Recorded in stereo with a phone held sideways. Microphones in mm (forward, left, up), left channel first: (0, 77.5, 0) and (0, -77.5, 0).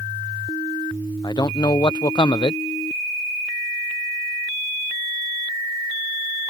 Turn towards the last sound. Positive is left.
turn(degrees=30)  # may be behind; listen again after turning